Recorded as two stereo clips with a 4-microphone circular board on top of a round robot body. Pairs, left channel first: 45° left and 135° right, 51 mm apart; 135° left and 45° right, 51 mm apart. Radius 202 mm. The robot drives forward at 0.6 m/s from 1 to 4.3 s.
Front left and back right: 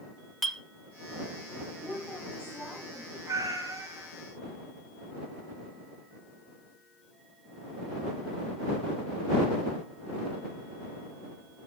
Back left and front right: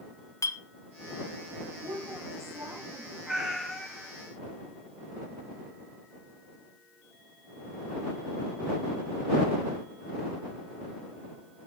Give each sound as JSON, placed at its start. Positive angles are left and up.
{"t": 0.4, "sound": "a clink", "azimuth_deg": 135, "distance_m": 1.6}
{"t": 1.8, "sound": "a woman speaking", "azimuth_deg": -30, "distance_m": 7.0}
{"t": 3.3, "sound": "a cat meowing", "azimuth_deg": -125, "distance_m": 1.4}